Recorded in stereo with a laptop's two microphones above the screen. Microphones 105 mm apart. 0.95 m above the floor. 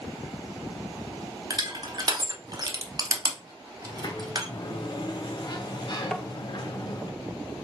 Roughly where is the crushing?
Right.